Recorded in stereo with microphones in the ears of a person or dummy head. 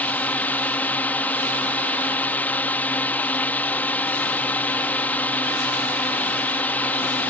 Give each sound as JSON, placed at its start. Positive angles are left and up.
{"t": 0.0, "sound": "a drone", "side_deg": 10}